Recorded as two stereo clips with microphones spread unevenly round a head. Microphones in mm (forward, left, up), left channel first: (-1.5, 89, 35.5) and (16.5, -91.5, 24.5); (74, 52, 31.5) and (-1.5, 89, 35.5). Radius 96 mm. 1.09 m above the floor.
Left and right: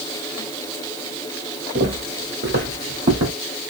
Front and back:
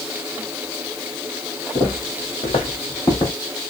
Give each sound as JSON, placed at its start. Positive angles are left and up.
{"t": 1.8, "sound": "footsteps", "azimuth_deg": -55, "distance_m": 1.7}